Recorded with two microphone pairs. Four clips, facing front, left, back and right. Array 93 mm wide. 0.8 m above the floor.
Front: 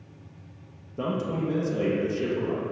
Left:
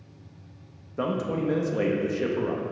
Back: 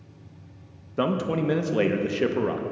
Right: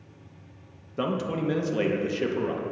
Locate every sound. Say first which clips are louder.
1.0 s a man speaking: left 1 dB, back 4 dB; 175° left, 0.5 m